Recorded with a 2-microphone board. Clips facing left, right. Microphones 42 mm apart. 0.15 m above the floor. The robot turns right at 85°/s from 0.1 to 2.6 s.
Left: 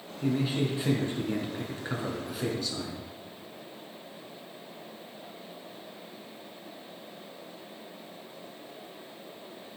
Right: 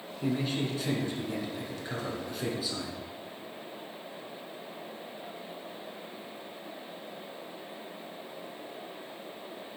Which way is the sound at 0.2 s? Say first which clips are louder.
Left 2 dB; 10° right.